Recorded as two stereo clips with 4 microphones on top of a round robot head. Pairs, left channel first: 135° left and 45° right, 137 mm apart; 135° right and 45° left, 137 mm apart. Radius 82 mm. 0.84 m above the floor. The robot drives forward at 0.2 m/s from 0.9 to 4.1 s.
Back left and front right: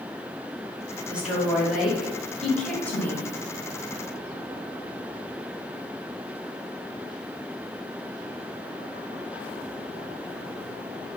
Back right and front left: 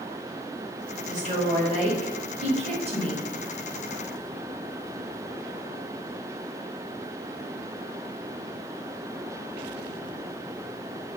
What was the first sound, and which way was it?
A woman speaking, 35° left.